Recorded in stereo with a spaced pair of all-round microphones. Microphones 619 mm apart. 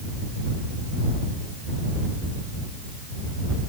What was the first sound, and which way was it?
Only background noise.